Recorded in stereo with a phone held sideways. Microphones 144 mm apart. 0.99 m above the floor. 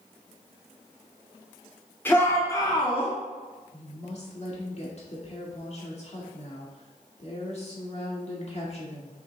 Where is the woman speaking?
50° left (ahead or behind), 1.9 m.